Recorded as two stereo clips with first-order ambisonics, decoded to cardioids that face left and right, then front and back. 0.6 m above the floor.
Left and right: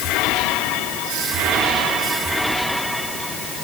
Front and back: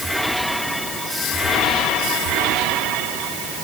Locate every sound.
Only background noise.